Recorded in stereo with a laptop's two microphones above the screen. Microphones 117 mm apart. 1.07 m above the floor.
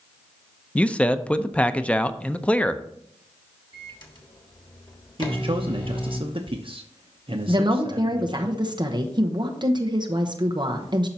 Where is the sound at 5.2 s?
50° right (ahead or behind), 0.7 m.